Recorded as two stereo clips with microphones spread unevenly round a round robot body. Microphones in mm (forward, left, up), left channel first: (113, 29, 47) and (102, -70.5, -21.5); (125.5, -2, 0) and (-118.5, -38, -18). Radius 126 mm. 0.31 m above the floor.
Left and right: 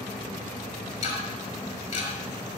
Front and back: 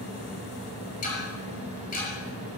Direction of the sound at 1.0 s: 70° left.